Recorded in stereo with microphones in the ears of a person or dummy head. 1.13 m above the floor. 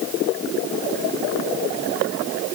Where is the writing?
I don't hear writing.